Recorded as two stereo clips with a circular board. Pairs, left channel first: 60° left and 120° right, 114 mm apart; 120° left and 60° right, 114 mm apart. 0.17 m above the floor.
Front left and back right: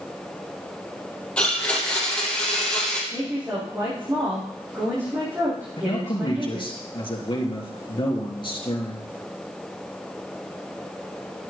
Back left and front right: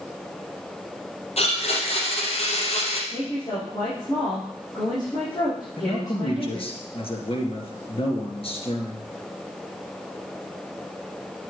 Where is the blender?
140° left, 4 m.